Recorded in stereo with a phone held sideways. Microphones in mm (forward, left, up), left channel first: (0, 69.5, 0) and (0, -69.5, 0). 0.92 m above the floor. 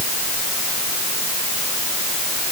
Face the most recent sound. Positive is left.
No sound to turn to.